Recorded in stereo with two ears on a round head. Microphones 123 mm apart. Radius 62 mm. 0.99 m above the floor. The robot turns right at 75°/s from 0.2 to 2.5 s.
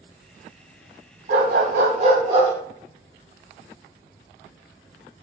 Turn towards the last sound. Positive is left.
turn(degrees=-20)